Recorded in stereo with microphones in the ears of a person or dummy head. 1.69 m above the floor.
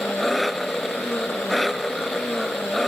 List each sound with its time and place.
0.0 s an engine running: 5° left (ahead or behind)